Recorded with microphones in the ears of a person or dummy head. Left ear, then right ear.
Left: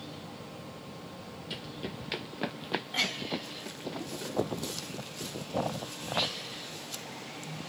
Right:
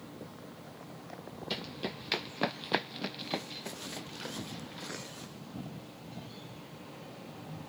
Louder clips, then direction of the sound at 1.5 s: Right 3 dB; 25° right (ahead or behind).